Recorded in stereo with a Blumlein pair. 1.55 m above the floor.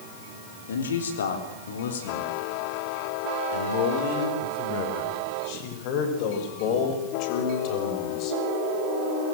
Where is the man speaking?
65° left, 3.5 m; by 8.4 s 35° left, 6.5 m.